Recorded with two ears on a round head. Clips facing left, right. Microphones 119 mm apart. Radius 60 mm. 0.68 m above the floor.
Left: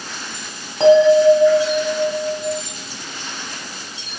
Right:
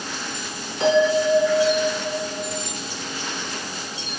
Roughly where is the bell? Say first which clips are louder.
Left 8 dB; left.